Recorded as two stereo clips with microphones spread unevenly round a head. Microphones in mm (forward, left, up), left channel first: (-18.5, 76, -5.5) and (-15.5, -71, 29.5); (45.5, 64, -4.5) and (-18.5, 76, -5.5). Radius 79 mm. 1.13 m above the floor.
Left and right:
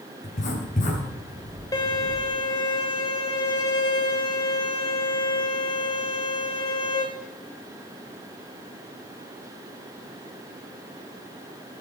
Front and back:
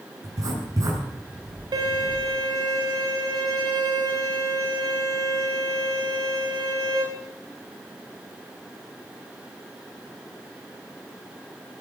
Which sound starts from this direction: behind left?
Writing, at 0.2 s.